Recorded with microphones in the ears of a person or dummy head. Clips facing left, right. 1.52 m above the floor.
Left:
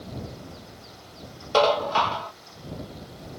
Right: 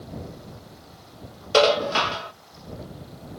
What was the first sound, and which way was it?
Dishes clattering, 30° right (ahead or behind).